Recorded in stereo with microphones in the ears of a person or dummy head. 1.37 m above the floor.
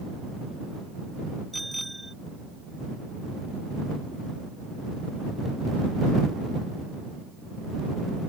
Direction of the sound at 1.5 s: Centre (ahead or behind).